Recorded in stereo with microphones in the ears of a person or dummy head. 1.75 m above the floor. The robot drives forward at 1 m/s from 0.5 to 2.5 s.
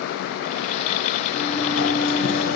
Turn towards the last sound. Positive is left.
turn(degrees=70)  # may be behind; listen again after turning